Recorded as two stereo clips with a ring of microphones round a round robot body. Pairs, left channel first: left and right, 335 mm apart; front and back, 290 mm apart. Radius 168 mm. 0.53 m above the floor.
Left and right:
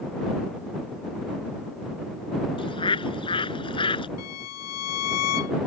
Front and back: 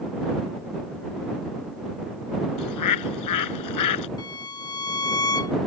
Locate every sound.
2.6 s a bird: 15° left
4.2 s a violin: 70° left